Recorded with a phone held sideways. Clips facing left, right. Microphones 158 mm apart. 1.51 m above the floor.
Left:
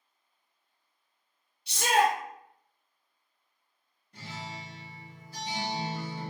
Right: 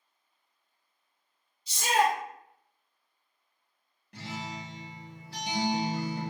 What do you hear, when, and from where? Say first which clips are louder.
1.7 s a shout: left 1 dB; 70° left (ahead or behind), 0.8 m
4.1 s a guitar: right 3 dB; 80° right, 0.6 m